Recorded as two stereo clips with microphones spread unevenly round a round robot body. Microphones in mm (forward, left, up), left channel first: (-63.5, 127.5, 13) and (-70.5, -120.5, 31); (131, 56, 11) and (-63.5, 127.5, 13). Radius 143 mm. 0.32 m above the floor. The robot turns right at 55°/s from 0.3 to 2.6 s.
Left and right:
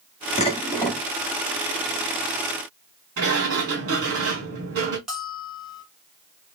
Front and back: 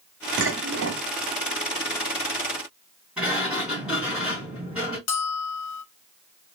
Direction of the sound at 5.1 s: Straight ahead.